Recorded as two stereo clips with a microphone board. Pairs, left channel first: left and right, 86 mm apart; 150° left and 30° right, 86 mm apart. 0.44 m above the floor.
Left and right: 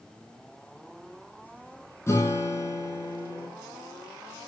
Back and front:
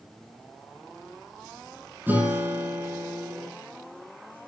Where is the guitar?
35° left, 9 m.